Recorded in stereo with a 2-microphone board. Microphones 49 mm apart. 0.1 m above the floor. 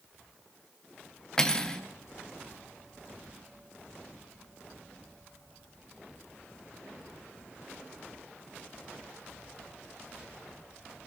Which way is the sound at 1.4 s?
15° left (ahead or behind).